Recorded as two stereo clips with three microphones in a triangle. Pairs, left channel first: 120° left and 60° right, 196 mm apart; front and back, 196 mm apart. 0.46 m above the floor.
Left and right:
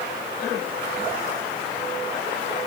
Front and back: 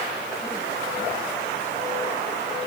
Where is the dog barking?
No dog barking in this recording.